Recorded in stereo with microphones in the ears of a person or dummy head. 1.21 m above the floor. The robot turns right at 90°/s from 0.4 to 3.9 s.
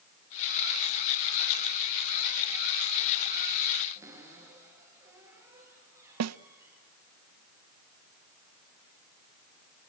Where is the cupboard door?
10° right (ahead or behind), 8.5 m.